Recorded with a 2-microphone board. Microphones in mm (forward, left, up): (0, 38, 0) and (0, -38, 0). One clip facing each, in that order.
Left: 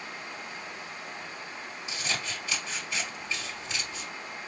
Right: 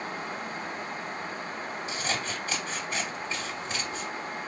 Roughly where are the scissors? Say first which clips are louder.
Right 1 dB; right.